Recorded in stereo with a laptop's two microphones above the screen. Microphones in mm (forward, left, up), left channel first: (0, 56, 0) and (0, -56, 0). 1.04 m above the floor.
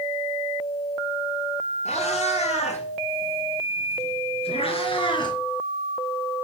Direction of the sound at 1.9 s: 80° left.